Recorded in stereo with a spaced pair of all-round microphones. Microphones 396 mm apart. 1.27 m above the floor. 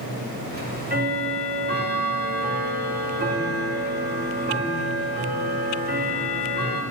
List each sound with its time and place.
0.5 s ticking: 25° right (ahead or behind), 1.7 m